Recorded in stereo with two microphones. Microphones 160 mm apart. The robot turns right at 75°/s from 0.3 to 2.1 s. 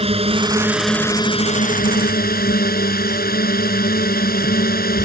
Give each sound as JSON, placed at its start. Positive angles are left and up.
{"t": 0.0, "sound": "a drone", "azimuth_deg": -40}